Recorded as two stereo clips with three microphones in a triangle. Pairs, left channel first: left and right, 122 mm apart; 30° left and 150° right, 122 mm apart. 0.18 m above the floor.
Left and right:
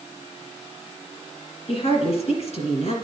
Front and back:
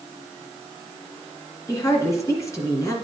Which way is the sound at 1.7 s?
90° left.